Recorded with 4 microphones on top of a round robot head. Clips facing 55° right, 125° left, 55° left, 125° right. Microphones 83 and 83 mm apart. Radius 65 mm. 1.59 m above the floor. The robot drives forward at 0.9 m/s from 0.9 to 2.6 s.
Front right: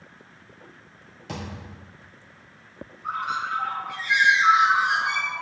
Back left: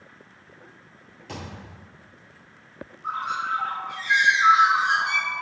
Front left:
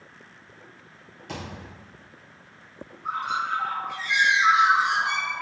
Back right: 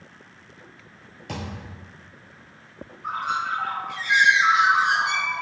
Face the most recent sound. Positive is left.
turn(degrees=-175)